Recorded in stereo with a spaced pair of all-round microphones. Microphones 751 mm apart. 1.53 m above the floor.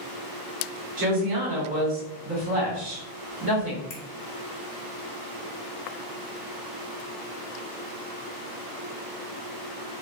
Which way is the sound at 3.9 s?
80° left.